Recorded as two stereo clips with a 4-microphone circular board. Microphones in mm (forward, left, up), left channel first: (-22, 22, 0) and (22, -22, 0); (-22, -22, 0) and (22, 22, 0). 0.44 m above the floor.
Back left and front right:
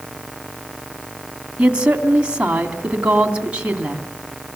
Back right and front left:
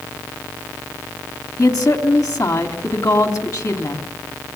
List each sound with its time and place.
1.6 s a woman speaking: 115° right, 3 m